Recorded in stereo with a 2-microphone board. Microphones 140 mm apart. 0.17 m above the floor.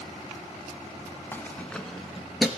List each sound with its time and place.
1.3 s keys jangling: 15° left (ahead or behind), 0.7 m; by 2.5 s centre (ahead or behind), 1.7 m